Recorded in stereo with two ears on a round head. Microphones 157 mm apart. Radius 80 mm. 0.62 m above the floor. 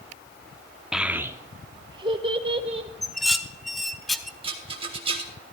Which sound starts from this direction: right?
A rattle, at 4.4 s.